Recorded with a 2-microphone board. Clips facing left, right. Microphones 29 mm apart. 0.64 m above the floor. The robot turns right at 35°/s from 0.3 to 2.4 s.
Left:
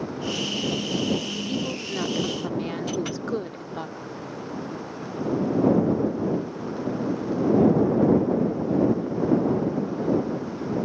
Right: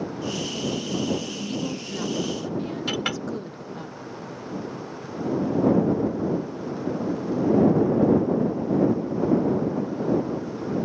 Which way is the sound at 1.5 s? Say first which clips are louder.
Left 1 dB; 20° left.